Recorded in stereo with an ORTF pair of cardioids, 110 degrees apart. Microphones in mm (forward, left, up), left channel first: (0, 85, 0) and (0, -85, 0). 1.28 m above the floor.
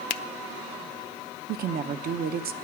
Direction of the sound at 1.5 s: 65° right.